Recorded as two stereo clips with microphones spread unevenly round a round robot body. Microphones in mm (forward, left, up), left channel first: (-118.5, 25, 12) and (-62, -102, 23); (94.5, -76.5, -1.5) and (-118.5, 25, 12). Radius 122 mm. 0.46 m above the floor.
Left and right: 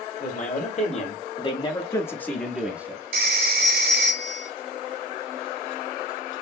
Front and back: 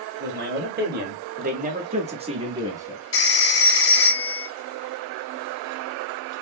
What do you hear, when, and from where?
0.2 s a man speaking: 105° left, 1.7 m; by 3.0 s 130° right, 1.0 m
3.1 s a phone ringing: 60° right, 3 m